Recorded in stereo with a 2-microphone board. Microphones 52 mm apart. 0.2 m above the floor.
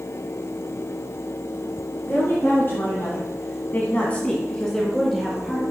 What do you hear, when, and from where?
2.1 s a woman speaking: 35° left (ahead or behind), 3 m; by 5.6 s centre (ahead or behind), 3 m